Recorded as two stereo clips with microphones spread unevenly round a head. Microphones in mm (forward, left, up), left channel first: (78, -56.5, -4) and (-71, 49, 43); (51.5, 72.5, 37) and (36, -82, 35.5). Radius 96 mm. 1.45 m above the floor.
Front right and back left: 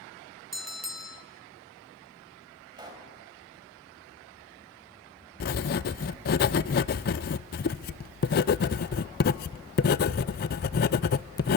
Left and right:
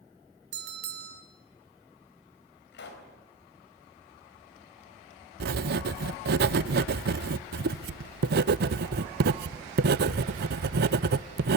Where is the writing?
80° right, 0.6 m.